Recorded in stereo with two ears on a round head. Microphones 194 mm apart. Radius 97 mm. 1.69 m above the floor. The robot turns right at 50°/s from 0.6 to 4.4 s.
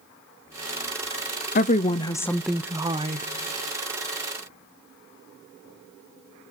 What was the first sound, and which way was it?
A woman speaking, 135° left.